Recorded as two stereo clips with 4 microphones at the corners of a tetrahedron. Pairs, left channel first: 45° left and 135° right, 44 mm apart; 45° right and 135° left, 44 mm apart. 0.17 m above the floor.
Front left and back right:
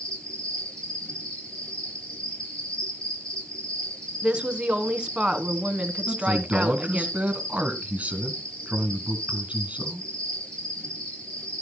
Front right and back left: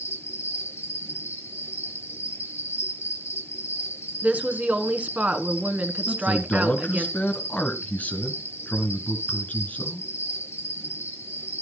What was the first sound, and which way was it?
An insect, 20° right.